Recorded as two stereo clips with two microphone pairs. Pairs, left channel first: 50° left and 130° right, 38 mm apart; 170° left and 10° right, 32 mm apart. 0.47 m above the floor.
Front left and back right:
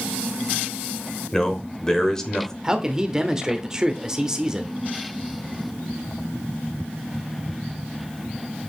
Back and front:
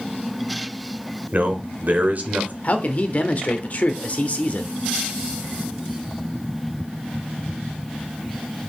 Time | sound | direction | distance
1.3 | a man speaking | 20° right | 1.4 m
2.6 | a man speaking | 165° left | 0.9 m